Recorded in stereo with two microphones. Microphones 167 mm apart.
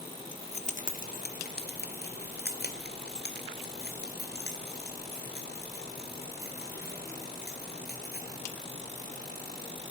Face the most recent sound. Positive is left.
turn(degrees=80)